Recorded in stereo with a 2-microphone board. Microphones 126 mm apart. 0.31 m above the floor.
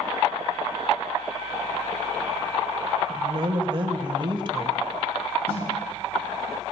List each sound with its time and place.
3.1 s a woman speaking: 40° right (ahead or behind), 1.3 m
5.5 s a snare drum: 65° left (ahead or behind), 7.5 m